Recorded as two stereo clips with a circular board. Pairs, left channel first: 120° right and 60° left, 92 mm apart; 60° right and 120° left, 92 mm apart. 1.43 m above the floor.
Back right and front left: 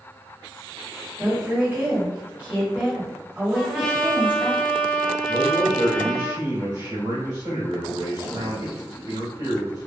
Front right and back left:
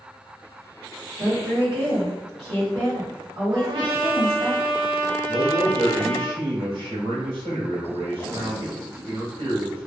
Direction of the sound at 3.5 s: 155° left.